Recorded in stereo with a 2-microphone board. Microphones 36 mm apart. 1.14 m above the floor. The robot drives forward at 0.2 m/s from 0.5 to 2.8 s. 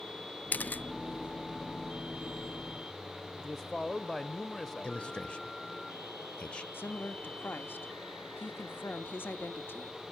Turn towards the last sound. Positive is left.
turn(degrees=75)  # may be behind; listen again after turning